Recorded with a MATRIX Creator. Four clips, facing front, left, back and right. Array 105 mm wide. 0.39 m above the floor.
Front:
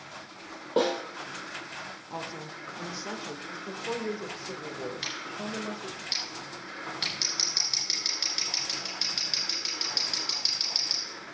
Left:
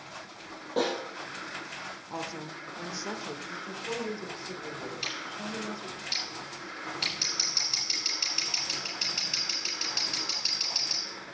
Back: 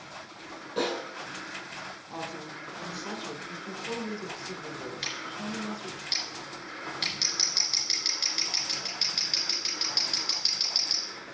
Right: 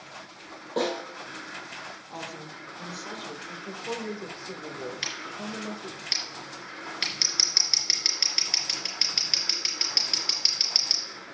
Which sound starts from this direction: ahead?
A snare drum, at 0.8 s.